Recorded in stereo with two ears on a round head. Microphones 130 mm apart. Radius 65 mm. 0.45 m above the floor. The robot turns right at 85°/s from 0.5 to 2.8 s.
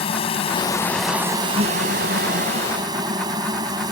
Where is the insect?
135° left; by 3.9 s 30° right.